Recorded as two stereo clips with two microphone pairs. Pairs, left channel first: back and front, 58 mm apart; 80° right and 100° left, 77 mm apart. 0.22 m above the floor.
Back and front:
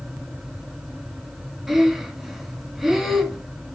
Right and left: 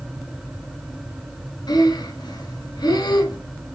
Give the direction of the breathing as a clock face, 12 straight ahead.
3 o'clock.